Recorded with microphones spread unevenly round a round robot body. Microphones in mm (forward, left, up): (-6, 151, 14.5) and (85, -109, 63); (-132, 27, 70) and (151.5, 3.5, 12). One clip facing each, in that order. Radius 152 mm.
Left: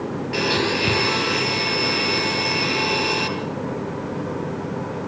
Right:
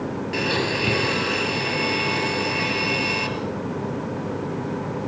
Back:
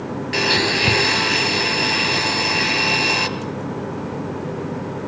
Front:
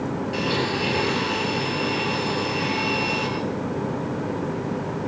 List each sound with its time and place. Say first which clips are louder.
0.3 s a blender: left 3 dB, back 5 dB; 165° right, 3.5 m